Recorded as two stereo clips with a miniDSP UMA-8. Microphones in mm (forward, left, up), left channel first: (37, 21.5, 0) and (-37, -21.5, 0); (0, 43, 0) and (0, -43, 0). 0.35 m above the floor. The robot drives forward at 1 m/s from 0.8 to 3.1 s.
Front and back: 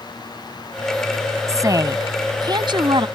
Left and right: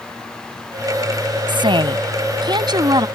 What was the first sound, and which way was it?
A woman speaking, 100° right.